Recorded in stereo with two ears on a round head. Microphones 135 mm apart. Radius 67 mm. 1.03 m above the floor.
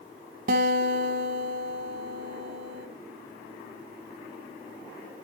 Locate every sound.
0.5 s a guitar: 65° right (ahead or behind), 1.8 m